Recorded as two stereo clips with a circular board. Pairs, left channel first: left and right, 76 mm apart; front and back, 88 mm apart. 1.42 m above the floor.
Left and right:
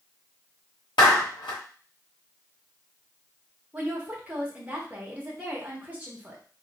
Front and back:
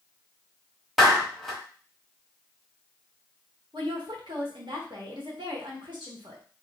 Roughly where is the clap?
Left.